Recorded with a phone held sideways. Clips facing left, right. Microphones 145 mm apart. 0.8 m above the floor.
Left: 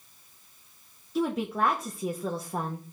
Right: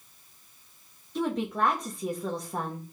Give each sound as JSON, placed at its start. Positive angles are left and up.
{"t": 1.1, "sound": "a woman speaking", "side_deg": 5, "distance_m": 1.1}